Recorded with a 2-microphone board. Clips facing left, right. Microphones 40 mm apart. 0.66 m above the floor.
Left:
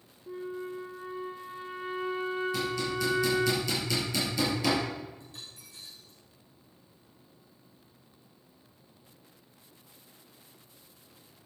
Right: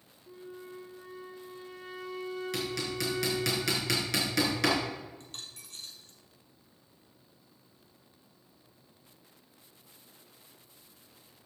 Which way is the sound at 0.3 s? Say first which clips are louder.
Left 8 dB; 30° left (ahead or behind).